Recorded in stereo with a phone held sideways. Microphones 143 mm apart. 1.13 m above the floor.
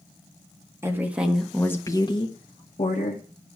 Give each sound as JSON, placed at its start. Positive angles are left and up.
{"t": 0.8, "sound": "a woman speaking", "side_deg": -20, "distance_m": 1.9}